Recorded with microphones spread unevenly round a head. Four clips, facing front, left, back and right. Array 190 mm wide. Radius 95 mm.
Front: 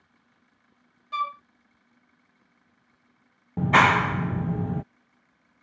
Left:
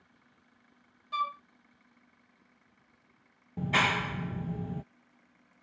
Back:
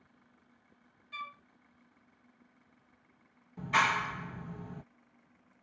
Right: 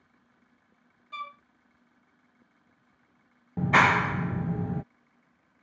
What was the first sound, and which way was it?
A flute, 15° left.